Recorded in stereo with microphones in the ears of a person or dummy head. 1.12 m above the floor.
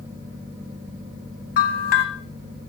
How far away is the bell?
About 2.5 m.